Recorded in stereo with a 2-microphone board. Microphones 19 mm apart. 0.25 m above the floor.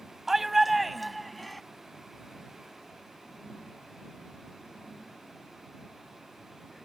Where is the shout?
20° right (ahead or behind); by 1.6 s 10° left (ahead or behind).